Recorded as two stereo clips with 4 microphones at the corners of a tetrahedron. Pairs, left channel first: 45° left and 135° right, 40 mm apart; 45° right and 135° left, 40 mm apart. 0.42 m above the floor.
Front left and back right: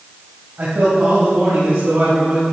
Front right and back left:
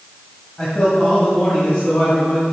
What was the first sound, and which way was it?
A man speaking, 110° right.